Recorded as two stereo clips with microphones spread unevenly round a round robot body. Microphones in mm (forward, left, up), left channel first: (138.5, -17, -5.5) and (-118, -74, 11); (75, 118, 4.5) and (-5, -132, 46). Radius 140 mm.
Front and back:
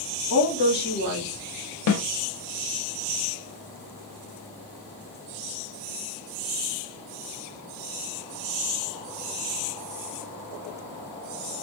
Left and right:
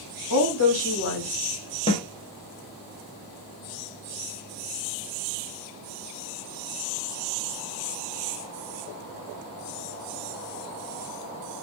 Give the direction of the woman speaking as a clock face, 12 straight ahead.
10 o'clock.